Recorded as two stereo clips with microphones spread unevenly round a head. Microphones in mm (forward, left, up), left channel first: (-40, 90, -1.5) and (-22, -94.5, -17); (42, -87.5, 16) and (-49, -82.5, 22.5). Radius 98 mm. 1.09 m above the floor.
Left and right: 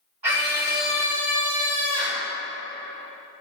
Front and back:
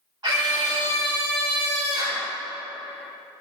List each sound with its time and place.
0.2 s a scream: 135° right, 2.5 m